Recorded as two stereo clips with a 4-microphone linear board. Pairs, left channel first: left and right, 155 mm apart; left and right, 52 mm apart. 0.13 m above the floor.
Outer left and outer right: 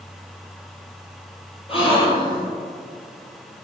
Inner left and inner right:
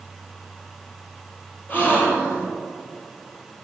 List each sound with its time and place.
1.7 s a gasp: 35° left (ahead or behind), 2 m